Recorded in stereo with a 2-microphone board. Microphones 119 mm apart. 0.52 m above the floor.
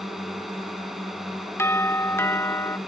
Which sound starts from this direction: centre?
A drone, at 0.0 s.